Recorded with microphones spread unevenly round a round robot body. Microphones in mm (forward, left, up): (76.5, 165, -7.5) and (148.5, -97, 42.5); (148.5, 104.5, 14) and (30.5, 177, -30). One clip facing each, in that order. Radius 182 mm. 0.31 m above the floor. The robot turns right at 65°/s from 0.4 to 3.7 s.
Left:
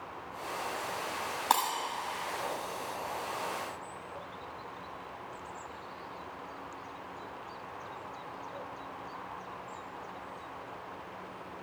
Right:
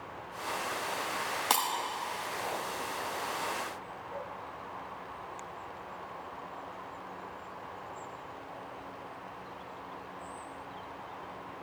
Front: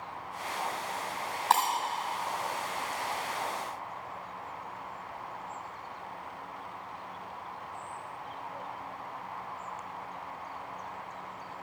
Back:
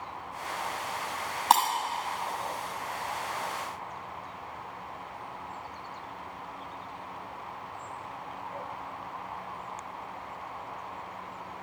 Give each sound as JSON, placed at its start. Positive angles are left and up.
{"t": 1.5, "sound": "breaking glass", "azimuth_deg": -155, "distance_m": 0.9}